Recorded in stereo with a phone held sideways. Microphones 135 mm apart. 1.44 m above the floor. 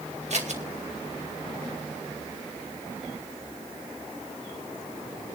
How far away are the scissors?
About 2 m.